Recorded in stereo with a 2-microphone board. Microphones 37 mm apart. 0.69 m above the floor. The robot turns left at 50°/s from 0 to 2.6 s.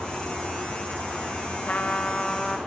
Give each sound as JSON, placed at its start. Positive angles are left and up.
{"t": 1.7, "sound": "a trumpet", "azimuth_deg": 45, "distance_m": 1.0}